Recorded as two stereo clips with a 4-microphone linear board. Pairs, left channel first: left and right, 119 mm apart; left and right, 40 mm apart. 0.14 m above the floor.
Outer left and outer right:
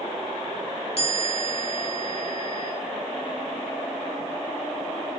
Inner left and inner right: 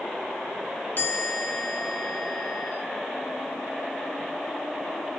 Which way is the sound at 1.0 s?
50° left (ahead or behind).